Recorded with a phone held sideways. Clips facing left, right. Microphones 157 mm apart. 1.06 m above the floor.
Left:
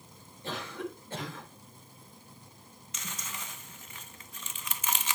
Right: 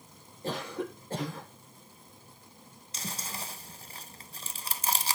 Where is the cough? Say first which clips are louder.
Right 3 dB; 40° right (ahead or behind), 4.5 m.